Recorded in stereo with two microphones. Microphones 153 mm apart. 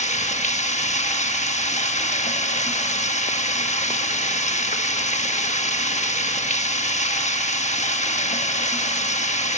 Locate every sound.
0.0 s running water: 50° left (ahead or behind), 1.1 m